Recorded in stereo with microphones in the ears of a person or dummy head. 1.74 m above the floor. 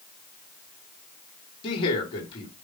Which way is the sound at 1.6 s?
35° left (ahead or behind).